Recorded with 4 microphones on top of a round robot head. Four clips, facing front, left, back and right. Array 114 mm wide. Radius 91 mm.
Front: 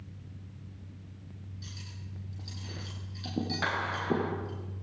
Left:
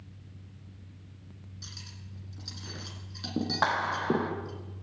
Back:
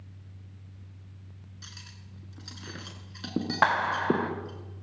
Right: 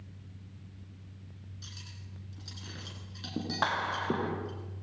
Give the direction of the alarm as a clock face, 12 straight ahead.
I don't hear an alarm.